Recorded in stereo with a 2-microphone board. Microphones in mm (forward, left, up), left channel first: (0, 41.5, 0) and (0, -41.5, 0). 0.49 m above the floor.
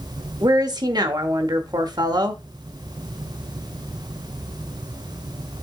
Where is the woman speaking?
55° right (ahead or behind), 1.2 m.